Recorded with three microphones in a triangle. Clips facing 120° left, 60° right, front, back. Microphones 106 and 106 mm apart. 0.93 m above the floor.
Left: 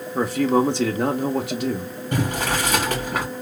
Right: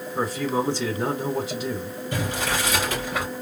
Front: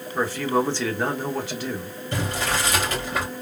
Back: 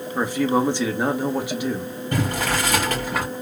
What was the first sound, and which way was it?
A man speaking, 105° left.